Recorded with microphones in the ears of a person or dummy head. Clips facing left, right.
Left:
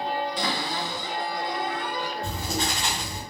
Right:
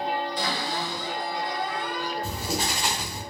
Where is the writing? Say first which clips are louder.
Even; 5° right (ahead or behind), 0.8 m.